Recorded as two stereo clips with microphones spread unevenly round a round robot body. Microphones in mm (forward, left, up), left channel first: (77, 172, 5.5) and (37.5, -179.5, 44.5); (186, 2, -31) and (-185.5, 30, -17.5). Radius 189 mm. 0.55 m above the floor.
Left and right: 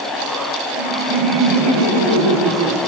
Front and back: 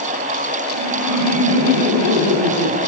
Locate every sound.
0.7 s laughter: 140° right, 4.5 m; by 2.8 s 145° right, 5.5 m